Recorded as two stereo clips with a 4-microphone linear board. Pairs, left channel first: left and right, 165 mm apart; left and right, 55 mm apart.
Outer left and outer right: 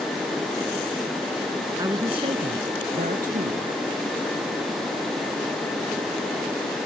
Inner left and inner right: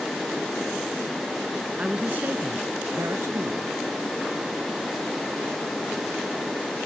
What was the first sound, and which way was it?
A woman speaking, 20° right (ahead or behind).